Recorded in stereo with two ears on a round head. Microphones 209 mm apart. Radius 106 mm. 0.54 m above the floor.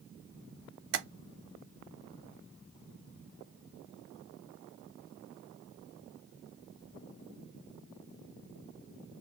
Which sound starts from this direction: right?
Tapping, at 0.9 s.